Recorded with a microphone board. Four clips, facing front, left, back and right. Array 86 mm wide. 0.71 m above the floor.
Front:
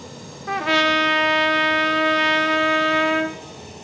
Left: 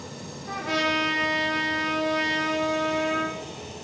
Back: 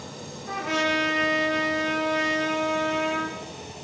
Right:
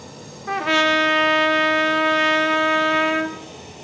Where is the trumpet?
50° right, 1.2 m.